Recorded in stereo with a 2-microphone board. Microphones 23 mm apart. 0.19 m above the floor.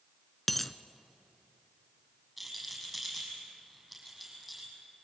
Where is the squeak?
No squeak in this recording.